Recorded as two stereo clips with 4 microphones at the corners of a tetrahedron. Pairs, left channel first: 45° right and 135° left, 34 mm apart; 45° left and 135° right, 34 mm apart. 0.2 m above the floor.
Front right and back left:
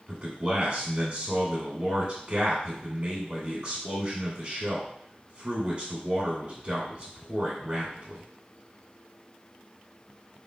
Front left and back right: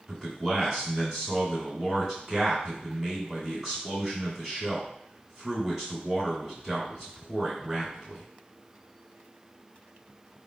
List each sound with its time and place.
0.1 s a man speaking: 150° left, 1.9 m